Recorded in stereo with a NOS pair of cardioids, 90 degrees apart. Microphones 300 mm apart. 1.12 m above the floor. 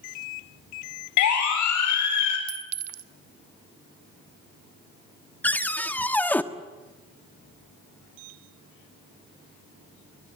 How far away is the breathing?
I don't hear breathing.